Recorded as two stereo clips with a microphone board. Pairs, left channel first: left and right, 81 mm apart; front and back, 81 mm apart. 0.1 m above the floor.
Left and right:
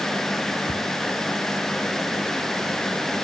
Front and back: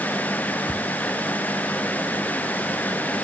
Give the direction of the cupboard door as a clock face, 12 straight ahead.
10 o'clock.